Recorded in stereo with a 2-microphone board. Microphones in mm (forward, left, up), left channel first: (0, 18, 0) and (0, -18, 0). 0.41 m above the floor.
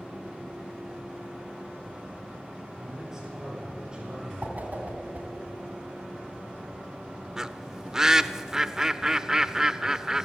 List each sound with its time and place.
2.8 s a man speaking: 15° right (ahead or behind), 8 m; by 4.3 s 25° right (ahead or behind), 7 m
4.4 s a whoosh: 50° right (ahead or behind), 3 m
7.4 s a bird: 15° right (ahead or behind), 0.5 m